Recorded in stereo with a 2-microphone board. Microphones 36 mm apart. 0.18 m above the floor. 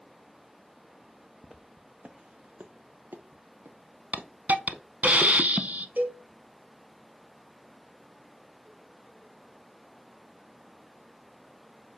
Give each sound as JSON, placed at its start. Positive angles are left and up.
{"t": 1.4, "sound": "footsteps", "side_deg": -10, "distance_m": 0.9}
{"t": 4.1, "sound": "a hiss", "side_deg": -40, "distance_m": 0.7}
{"t": 6.0, "sound": "a cowbell", "side_deg": -50, "distance_m": 1.7}